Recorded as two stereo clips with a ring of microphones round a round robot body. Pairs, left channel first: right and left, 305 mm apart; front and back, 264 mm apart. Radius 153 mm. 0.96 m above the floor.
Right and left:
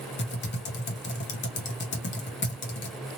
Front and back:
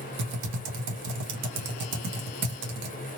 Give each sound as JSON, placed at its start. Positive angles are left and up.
{"t": 0.2, "sound": "typing on a keyboard", "azimuth_deg": -145, "distance_m": 0.8}